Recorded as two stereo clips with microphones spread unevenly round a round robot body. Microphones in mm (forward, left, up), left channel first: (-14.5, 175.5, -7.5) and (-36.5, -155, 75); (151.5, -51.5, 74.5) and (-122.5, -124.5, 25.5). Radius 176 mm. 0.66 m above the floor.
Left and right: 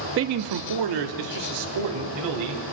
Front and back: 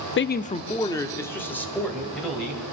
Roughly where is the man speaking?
Ahead right.